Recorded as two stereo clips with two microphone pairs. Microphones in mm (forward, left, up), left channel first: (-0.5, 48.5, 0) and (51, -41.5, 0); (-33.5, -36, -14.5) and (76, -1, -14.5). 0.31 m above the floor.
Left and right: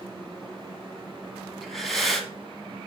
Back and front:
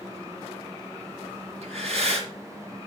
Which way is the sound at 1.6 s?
30° left.